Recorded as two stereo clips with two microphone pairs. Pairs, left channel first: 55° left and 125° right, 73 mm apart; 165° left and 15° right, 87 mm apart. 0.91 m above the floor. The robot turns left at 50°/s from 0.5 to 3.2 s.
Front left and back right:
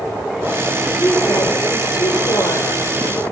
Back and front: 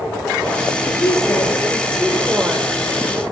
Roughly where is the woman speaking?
Behind left.